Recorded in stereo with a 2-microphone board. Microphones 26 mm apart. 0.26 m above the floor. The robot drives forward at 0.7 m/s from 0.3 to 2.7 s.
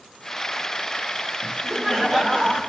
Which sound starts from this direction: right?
Laughter, at 1.4 s.